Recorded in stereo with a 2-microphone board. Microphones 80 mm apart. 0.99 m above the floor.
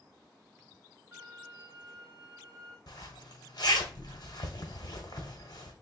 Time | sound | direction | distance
1.1 | a violin | 35° right (ahead or behind) | 1.9 m
2.9 | a zipper | 60° left (ahead or behind) | 1.2 m